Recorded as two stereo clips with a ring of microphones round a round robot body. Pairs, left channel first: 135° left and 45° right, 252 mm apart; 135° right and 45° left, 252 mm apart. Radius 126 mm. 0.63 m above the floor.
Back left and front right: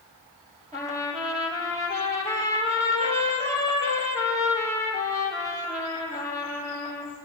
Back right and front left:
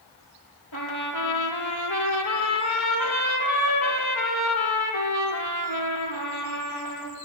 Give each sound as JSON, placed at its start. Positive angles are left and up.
{"t": 0.7, "sound": "a trumpet", "azimuth_deg": -110, "distance_m": 7.0}